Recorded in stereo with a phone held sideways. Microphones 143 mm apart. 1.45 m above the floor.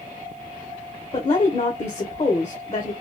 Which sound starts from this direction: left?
A woman speaking, at 1.1 s.